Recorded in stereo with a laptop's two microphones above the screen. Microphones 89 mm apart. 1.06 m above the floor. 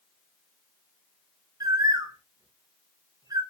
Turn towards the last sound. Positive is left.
turn(degrees=-40)  # may be behind; listen again after turning